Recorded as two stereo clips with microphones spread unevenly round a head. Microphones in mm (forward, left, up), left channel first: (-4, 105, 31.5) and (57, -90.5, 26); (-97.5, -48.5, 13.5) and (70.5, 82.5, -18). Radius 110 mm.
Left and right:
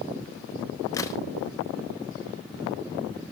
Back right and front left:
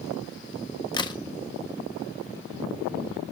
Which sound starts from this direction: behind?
A crack, at 0.9 s.